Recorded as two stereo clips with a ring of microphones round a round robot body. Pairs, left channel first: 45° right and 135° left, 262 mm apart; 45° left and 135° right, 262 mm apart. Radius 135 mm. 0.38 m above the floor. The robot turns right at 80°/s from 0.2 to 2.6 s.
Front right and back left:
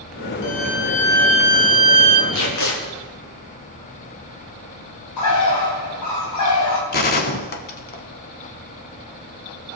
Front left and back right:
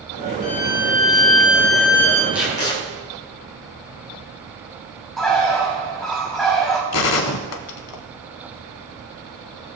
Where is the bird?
45° right, 2.5 m.